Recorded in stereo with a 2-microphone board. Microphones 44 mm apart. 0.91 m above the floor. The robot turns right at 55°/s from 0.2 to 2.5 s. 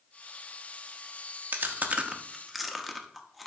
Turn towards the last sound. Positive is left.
turn(degrees=0)  # may be behind; listen again after turning